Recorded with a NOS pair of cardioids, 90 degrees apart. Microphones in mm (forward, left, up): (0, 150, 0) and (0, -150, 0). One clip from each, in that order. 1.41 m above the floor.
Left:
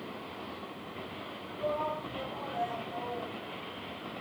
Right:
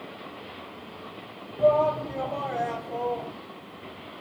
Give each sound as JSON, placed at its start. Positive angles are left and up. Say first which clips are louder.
{"t": 1.6, "sound": "a shout", "louder": "right 12 dB", "azimuth_deg": -65, "distance_m": 1.1}